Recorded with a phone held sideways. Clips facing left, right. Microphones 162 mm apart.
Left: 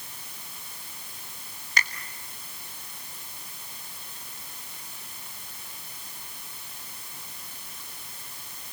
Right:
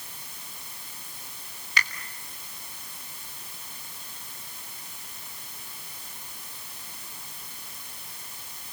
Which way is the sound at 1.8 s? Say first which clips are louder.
Even; 45° left (ahead or behind).